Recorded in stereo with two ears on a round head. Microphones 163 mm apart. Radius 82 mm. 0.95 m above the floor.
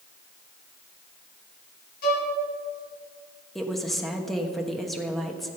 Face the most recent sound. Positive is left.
turn(degrees=0)  # may be behind; listen again after turning